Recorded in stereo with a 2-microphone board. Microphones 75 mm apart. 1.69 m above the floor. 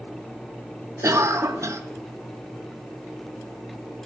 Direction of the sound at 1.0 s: 40° right (ahead or behind).